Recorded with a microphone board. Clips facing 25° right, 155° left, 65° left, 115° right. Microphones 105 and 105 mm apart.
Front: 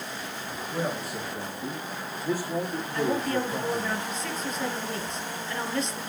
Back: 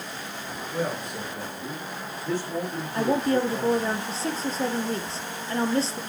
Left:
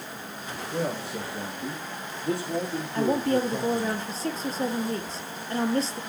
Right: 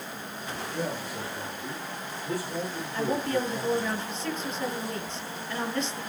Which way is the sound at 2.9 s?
110° left.